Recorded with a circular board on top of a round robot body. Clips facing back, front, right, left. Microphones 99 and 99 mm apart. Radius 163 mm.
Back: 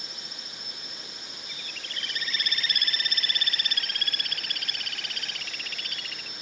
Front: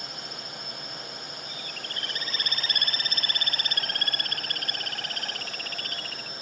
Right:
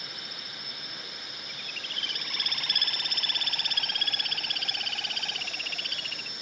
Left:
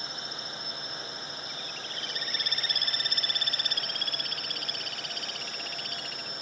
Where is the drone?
30° left; by 6.4 s 45° left.